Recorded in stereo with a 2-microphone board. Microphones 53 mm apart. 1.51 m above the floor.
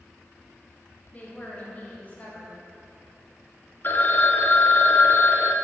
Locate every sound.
1.1 s a woman speaking: 30° left (ahead or behind), 3 m
3.8 s a phone ringing: 40° left (ahead or behind), 0.7 m